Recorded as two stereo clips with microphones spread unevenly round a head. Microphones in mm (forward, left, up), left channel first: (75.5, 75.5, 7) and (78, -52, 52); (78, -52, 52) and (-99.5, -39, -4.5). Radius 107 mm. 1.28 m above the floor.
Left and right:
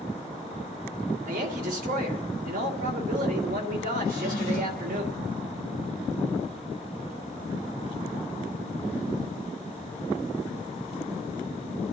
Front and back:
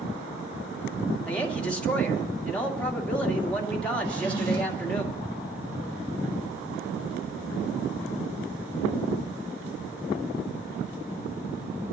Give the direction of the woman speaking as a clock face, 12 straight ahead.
3 o'clock.